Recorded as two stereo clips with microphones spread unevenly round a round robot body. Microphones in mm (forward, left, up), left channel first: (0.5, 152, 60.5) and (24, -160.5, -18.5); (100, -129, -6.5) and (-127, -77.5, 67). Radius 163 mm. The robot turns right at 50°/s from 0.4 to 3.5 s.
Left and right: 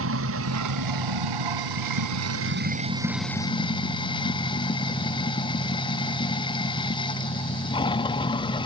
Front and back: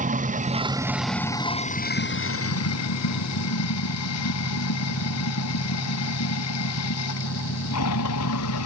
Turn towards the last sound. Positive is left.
turn(degrees=20)